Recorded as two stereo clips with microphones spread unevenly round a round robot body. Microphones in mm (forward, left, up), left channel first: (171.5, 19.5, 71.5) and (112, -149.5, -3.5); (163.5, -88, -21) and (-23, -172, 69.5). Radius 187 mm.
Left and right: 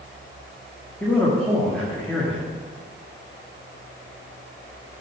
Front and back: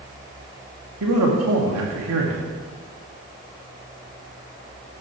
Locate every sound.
1.0 s a man speaking: 165° left, 1.9 m